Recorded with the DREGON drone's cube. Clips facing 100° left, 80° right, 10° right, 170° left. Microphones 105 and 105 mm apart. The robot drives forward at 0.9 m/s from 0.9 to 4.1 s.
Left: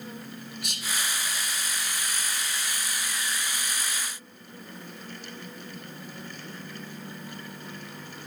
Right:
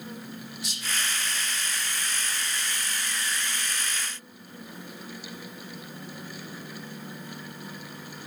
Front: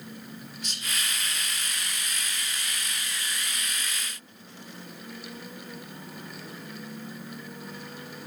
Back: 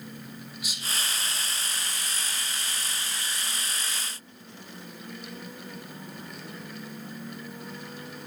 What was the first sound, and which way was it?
Whispering, 90° left.